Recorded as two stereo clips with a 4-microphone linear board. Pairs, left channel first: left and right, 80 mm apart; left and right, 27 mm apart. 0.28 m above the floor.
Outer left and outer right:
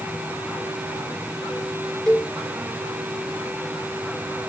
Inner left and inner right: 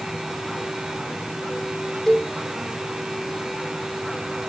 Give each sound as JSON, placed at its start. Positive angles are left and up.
{"t": 2.1, "sound": "a cowbell", "side_deg": 10, "distance_m": 1.1}